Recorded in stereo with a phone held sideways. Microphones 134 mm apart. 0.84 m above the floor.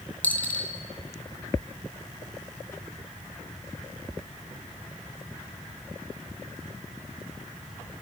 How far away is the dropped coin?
About 2.5 m.